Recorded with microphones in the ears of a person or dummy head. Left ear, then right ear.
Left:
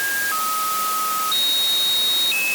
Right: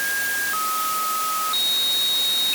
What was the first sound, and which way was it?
Only background noise.